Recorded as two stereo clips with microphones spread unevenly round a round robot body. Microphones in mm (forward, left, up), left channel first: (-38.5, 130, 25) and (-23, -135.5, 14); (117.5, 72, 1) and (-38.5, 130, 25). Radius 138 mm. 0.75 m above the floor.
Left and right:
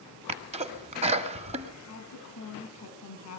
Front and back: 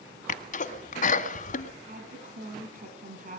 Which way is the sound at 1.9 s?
125° left.